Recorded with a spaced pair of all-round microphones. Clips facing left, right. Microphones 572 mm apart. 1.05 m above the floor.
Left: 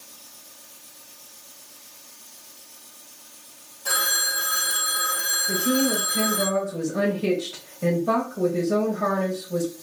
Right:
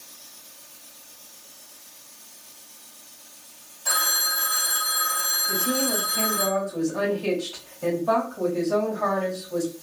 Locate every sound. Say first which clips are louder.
3.9 s a phone ringing: left 2 dB; 70° left (ahead or behind), 1.9 m
5.5 s a woman speaking: left 4 dB; 45° left (ahead or behind), 1.3 m